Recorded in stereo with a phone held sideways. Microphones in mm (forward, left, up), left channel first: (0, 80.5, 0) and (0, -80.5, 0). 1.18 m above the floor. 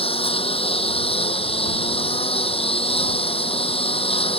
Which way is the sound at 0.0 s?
35° left (ahead or behind).